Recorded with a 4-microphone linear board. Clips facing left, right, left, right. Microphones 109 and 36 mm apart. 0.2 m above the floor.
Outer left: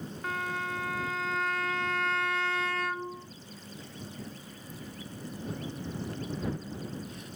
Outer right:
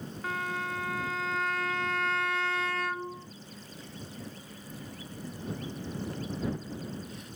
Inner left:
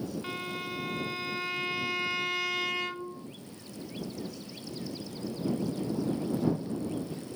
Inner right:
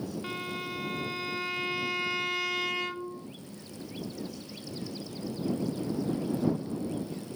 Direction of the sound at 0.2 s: Centre (ahead or behind).